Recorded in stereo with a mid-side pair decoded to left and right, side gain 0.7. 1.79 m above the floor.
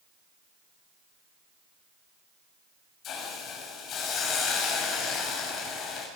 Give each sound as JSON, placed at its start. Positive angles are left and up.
{"t": 3.0, "sound": "a hiss", "azimuth_deg": 45, "distance_m": 6.5}